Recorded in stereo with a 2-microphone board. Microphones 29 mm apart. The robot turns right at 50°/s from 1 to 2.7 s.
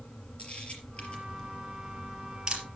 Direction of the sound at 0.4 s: 45° left (ahead or behind).